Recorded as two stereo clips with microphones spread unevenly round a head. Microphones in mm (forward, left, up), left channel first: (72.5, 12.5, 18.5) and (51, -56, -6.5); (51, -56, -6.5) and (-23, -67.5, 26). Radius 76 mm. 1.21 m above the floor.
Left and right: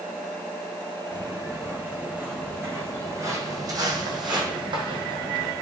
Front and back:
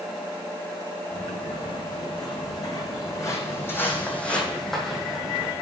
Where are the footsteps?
25° right, 3.5 m; by 5.5 s 110° right, 2.5 m.